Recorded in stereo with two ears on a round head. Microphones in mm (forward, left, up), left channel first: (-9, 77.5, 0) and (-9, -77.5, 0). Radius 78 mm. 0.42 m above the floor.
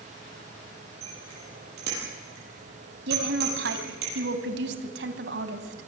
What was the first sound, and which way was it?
A bicycle bell, 60° right (ahead or behind).